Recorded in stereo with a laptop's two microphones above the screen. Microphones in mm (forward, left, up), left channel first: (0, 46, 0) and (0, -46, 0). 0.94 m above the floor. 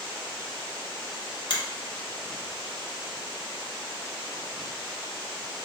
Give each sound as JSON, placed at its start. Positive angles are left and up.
{"t": 1.5, "sound": "a finger snap", "side_deg": 50, "distance_m": 1.0}